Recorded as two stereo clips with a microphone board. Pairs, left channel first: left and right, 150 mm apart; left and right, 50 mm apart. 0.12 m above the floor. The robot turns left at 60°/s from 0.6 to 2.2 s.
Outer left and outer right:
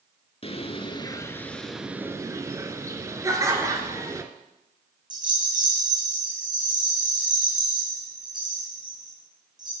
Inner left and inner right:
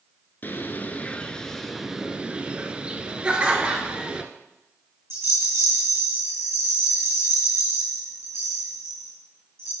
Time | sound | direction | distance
0.4 | a bird | 65° left | 0.6 m
3.2 | laughter | 20° right (ahead or behind) | 1.5 m
5.1 | a rattle | 55° right (ahead or behind) | 3 m